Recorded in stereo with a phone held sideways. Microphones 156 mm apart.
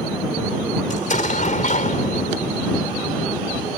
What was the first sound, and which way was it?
An explosion, 55° left (ahead or behind).